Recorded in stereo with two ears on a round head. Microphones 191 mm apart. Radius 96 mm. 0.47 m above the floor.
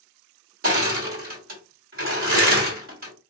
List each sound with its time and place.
0.6 s crushing: 45° right (ahead or behind), 1.6 m